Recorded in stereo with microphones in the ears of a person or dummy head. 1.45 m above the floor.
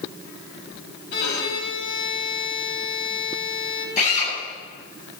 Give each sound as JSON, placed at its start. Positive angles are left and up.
{"t": 1.1, "sound": "a violin", "side_deg": 60, "distance_m": 3.5}
{"t": 4.0, "sound": "a drill", "side_deg": 40, "distance_m": 9.5}